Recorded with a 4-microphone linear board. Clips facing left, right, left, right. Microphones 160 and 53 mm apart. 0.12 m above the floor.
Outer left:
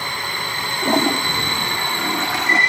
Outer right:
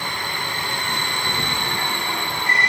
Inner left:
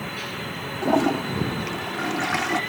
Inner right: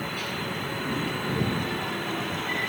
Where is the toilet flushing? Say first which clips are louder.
Outer left 10 dB, inner left 11 dB; 85° left.